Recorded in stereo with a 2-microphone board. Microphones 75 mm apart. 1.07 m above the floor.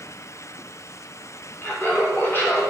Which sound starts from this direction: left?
Laughter, at 1.6 s.